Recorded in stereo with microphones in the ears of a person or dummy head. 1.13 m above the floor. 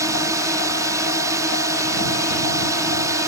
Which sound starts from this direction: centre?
A drone, at 0.0 s.